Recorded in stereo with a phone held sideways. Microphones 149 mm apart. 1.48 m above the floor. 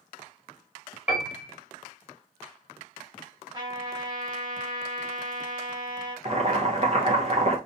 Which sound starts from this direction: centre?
A piano, at 1.1 s.